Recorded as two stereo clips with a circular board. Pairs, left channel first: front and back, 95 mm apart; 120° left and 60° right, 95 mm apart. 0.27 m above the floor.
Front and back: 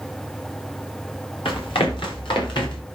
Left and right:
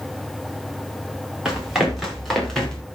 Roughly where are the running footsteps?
Ahead left.